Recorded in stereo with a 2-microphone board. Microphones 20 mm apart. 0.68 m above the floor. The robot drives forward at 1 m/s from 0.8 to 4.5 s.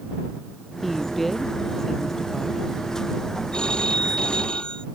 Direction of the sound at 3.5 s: 45° left (ahead or behind).